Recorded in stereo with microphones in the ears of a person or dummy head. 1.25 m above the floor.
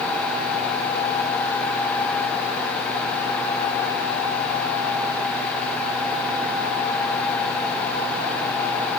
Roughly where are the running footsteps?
I don't hear running footsteps.